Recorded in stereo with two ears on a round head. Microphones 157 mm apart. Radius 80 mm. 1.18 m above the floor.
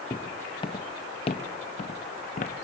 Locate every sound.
0.1 s footsteps: 20° left (ahead or behind), 2.5 m; by 2.6 s 50° left (ahead or behind), 2 m